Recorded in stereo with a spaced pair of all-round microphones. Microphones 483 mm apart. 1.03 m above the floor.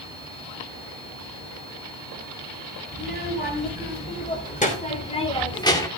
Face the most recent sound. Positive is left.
turn(degrees=5)  # may be behind; listen again after turning